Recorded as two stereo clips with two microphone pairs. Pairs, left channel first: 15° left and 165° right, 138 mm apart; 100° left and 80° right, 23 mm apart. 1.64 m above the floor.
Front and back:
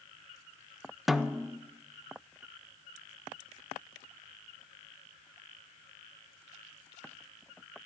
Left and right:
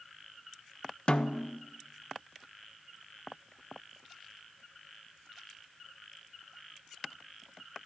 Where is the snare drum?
100° left, 0.5 m.